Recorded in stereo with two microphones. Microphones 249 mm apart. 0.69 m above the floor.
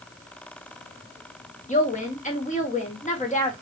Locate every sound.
1.7 s a woman speaking: 30° left (ahead or behind), 0.6 m